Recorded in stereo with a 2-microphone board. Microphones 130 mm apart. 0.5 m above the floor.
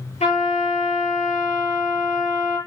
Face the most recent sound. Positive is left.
turn(degrees=65)  # may be behind; listen again after turning